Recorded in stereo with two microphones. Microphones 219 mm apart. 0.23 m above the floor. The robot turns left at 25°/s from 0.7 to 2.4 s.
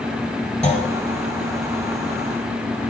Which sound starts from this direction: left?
A clunk, at 0.6 s.